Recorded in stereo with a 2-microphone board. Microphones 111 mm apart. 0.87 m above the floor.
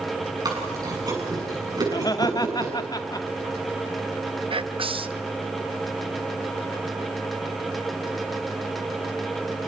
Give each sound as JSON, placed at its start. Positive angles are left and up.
{"t": 0.5, "sound": "chewing", "side_deg": -35, "distance_m": 7.0}
{"t": 1.9, "sound": "laughter", "side_deg": 35, "distance_m": 1.6}
{"t": 4.5, "sound": "whispering", "side_deg": -55, "distance_m": 0.9}